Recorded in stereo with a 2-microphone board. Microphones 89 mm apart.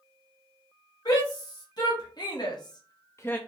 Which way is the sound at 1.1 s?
45° left (ahead or behind).